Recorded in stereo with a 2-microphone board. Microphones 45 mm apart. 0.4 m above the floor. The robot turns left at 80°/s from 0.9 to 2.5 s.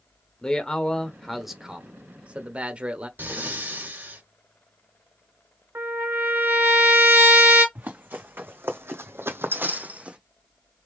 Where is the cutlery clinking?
I don't hear cutlery clinking.